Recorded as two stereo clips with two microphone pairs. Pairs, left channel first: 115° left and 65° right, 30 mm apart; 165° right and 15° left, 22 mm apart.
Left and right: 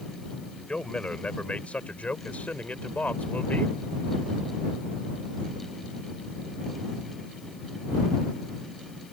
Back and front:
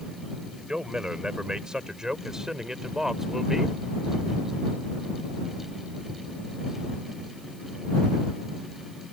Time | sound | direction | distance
0.7 | a man speaking | 65° left | ?